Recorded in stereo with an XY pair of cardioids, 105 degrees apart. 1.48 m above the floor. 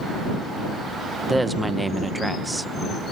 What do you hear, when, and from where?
1.3 s a woman speaking: 15° right